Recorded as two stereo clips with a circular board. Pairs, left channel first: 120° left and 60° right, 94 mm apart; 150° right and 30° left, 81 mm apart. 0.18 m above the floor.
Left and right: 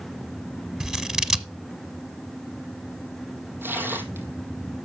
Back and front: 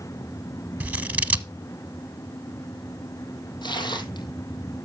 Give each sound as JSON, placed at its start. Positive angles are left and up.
{"t": 0.8, "sound": "scissors", "azimuth_deg": 10, "distance_m": 0.9}
{"t": 3.6, "sound": "tearing paper", "azimuth_deg": -125, "distance_m": 2.0}